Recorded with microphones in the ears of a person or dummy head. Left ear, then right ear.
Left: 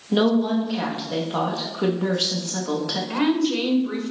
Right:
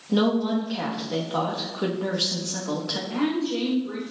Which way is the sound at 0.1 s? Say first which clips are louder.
Left 3 dB; 10° left (ahead or behind).